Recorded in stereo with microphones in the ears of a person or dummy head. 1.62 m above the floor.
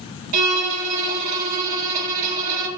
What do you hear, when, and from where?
0.3 s a violin: 45° right (ahead or behind), 1.6 m